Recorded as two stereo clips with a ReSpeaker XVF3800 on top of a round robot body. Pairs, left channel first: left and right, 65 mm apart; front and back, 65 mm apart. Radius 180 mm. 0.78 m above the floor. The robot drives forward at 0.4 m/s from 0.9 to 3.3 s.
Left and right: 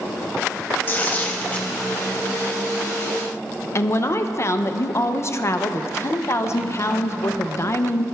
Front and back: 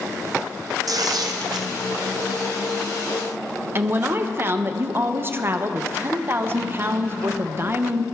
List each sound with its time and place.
0.9 s tearing paper: 150° left, 0.6 m; by 1.7 s 160° left, 0.9 m
3.8 s a woman speaking: 130° left, 0.7 m